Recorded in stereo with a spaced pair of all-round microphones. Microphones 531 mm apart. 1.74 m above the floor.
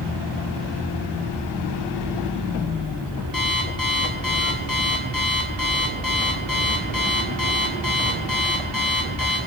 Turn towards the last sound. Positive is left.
turn(degrees=40)  # may be behind; listen again after turning